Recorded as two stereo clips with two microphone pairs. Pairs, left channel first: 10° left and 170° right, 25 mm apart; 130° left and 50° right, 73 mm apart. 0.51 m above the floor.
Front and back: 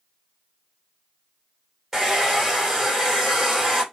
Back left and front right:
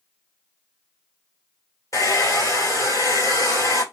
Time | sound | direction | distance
1.9 | a hair dryer | 115° left | 1.7 m